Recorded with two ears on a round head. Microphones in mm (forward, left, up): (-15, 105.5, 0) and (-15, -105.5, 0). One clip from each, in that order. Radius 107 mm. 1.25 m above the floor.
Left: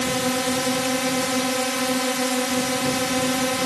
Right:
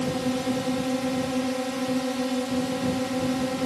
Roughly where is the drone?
Left.